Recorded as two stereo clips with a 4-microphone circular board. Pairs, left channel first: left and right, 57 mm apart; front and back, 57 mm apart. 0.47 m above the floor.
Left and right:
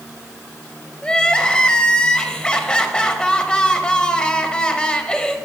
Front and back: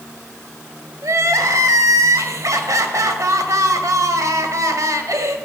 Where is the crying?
165° left, 0.7 m.